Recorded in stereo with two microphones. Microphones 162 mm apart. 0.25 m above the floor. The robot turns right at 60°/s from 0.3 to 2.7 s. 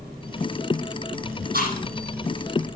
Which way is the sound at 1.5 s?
65° right (ahead or behind).